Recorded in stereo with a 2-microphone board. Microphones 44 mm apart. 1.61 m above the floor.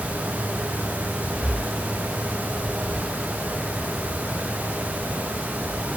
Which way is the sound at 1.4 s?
30° left (ahead or behind).